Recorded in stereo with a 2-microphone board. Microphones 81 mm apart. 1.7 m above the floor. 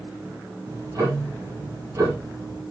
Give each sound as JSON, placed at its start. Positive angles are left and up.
{"t": 0.6, "sound": "ticking", "side_deg": -45, "distance_m": 6.5}